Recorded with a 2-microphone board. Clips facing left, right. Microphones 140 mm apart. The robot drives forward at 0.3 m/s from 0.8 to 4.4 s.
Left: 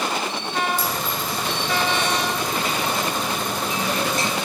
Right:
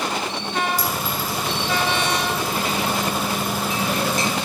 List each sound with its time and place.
0.8 s a clink: 45° right (ahead or behind), 1.5 m; by 1.4 s 40° right (ahead or behind), 1.6 m